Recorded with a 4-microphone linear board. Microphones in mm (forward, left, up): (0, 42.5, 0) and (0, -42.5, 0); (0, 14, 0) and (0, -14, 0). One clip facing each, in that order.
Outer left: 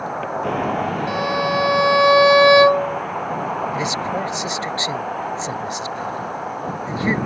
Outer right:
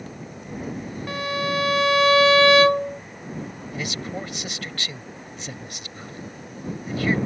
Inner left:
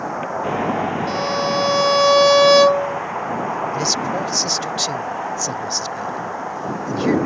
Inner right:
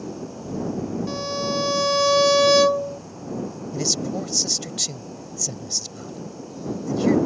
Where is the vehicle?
70° left (ahead or behind); by 7.3 s 85° left.